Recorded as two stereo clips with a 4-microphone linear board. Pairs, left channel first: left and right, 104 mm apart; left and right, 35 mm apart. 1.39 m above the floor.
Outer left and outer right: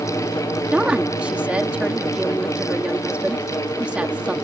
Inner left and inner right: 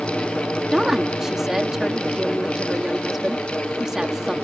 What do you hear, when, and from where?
0.7 s a woman speaking: 10° right (ahead or behind)